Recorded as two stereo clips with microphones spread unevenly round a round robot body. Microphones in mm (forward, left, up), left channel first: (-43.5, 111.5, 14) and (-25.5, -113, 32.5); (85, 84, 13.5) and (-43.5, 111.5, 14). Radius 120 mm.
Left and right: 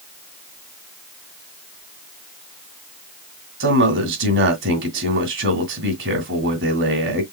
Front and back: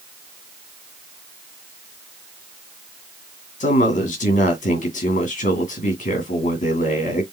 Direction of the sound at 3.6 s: 45° right.